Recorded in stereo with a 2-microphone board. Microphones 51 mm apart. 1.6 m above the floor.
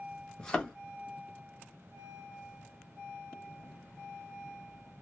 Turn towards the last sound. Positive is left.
turn(degrees=15)  # may be behind; listen again after turning